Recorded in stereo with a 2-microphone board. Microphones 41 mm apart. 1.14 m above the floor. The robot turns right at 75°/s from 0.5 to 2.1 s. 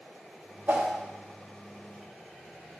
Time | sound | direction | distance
0.7 | a whoosh | 60° right (ahead or behind) | 0.9 m